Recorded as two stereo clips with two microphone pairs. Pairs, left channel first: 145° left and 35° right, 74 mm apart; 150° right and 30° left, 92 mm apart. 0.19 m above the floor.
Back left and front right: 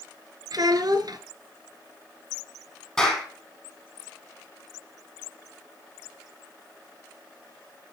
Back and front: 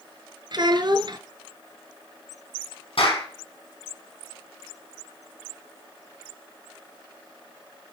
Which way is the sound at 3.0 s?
130° right.